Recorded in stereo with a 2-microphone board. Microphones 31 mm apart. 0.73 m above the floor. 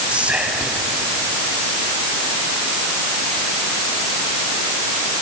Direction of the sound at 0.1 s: 45° right (ahead or behind).